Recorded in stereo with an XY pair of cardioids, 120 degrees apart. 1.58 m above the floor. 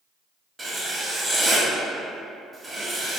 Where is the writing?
15° right, 0.7 m.